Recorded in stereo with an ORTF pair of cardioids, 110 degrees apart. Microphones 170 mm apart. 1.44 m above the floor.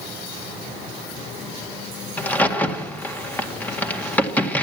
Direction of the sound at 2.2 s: 10° left.